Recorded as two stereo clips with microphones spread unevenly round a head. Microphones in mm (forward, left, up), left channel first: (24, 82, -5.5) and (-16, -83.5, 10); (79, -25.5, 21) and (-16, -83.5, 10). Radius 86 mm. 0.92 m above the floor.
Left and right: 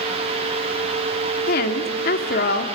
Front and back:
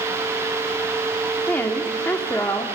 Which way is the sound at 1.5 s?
110° left.